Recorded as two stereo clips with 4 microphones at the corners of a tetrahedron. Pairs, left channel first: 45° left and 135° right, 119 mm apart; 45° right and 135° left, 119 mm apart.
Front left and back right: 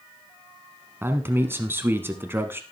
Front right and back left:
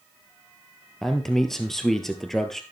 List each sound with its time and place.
1.0 s a man speaking: 125° right, 1.1 m